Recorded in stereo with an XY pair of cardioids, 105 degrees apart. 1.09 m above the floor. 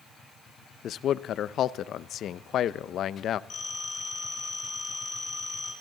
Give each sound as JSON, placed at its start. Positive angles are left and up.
{"t": 0.8, "sound": "a man speaking", "azimuth_deg": 65, "distance_m": 0.5}
{"t": 3.5, "sound": "a phone ringing", "azimuth_deg": 50, "distance_m": 6.5}